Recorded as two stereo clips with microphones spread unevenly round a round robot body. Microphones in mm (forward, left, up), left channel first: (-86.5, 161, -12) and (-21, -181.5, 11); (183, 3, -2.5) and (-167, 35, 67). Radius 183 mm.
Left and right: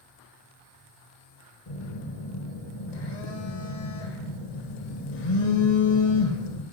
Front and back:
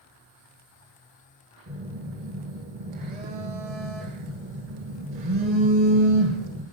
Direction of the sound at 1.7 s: 110° left.